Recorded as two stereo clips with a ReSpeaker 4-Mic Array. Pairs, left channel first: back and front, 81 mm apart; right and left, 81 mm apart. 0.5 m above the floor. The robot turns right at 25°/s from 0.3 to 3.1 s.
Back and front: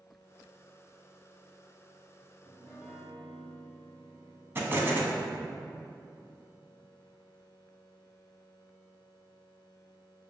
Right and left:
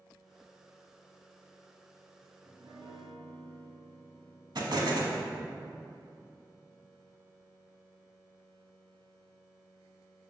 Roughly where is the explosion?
Ahead left.